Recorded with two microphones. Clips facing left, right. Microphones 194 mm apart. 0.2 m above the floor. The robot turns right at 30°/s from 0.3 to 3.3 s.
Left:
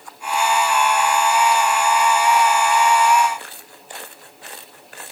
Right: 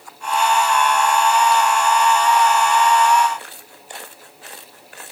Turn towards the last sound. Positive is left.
No sound to turn to.